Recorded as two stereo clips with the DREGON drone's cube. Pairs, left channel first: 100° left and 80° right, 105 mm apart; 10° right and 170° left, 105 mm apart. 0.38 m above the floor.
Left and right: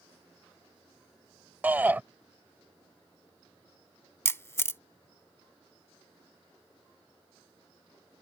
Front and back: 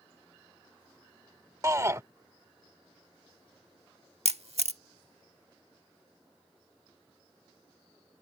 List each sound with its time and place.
1.6 s a shout: 145° right
4.2 s a camera shutter: 165° left